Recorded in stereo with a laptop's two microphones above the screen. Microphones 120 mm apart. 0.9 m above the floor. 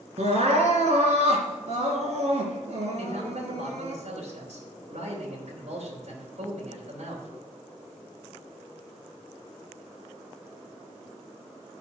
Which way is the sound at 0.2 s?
70° right (ahead or behind).